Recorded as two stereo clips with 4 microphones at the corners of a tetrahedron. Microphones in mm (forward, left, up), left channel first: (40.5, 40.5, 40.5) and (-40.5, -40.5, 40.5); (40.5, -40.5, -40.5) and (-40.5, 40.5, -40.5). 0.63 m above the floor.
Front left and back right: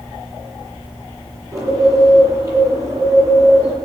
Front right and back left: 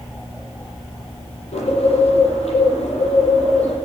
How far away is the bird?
About 9.5 m.